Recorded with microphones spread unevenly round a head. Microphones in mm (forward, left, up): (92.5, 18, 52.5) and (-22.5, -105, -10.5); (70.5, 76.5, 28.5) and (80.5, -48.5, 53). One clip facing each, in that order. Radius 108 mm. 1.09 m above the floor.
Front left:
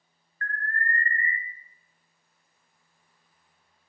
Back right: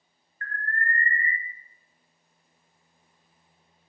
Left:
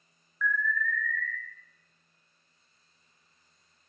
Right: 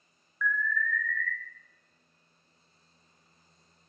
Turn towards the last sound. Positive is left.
turn(degrees=180)